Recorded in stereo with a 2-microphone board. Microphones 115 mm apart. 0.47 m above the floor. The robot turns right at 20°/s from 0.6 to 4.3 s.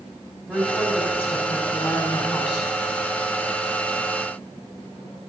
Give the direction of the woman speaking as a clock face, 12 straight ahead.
12 o'clock.